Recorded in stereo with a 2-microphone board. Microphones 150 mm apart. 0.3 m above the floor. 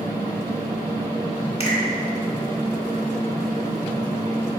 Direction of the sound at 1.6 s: 45° left (ahead or behind).